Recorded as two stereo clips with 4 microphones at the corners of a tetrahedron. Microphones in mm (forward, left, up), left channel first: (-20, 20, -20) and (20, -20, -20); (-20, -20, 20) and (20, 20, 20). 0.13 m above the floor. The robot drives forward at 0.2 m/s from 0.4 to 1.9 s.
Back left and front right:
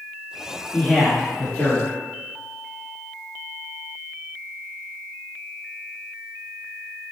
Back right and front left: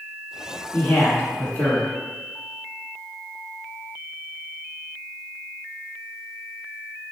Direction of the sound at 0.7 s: 170° right.